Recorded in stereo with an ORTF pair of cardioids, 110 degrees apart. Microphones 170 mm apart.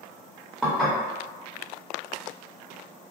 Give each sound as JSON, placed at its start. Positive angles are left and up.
{"t": 0.6, "sound": "dishes clattering", "azimuth_deg": 0, "distance_m": 1.3}